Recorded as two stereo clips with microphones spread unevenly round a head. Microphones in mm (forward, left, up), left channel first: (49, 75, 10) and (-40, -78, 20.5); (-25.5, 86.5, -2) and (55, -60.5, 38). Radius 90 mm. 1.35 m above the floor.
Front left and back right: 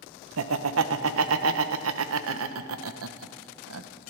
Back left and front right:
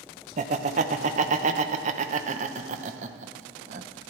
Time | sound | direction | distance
0.4 | laughter | 115° right | 0.9 m